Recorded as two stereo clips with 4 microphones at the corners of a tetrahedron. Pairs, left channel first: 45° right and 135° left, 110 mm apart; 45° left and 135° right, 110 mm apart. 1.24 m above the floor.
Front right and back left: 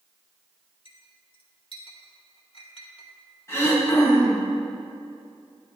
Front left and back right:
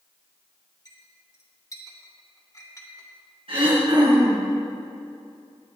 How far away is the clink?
About 2 m.